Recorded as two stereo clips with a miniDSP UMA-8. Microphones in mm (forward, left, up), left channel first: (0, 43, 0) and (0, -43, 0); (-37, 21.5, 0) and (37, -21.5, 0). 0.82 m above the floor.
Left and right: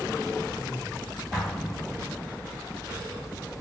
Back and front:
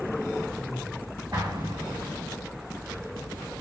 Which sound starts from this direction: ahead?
An explosion, at 1.3 s.